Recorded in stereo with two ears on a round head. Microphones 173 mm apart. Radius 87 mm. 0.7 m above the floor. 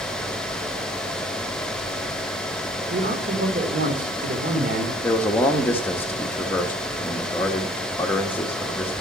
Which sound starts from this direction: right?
A man speaking, at 2.9 s.